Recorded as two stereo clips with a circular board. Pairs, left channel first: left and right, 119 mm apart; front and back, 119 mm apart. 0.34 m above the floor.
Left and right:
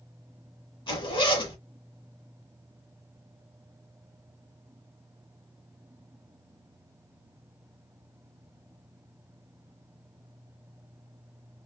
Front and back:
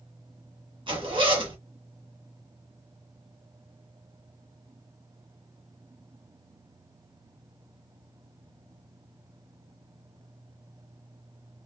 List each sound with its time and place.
0.9 s a zipper: 135° left, 1.6 m